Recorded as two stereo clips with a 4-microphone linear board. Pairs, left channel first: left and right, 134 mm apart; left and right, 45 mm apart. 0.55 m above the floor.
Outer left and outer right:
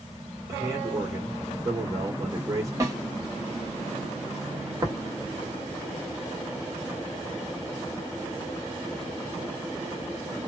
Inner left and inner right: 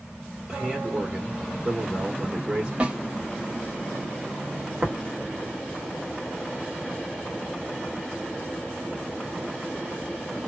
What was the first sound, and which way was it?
A man speaking, 25° right (ahead or behind).